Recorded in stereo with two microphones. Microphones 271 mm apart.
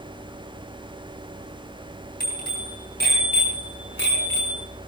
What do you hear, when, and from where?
2.2 s a bicycle bell: 35° left (ahead or behind), 8.5 m; by 4.7 s 45° left (ahead or behind), 6 m